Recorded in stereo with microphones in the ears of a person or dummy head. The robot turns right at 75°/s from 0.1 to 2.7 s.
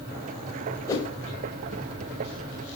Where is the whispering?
I don't hear whispering.